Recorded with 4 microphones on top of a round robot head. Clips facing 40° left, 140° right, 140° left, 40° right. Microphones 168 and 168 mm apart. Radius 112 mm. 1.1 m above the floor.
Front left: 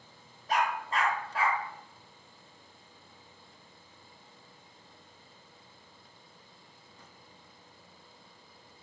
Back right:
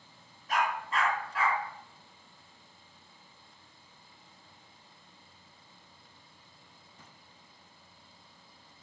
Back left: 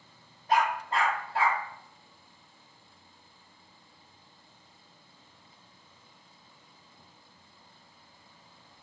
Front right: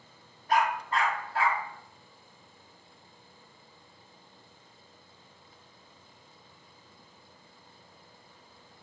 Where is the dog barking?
80° left, 0.6 m.